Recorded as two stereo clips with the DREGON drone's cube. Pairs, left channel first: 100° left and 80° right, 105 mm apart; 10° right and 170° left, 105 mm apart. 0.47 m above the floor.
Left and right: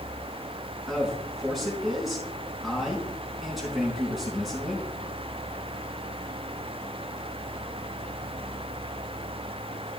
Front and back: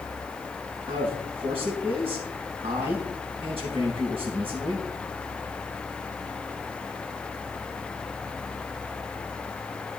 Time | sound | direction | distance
0.9 | a man speaking | 165° right | 4.5 m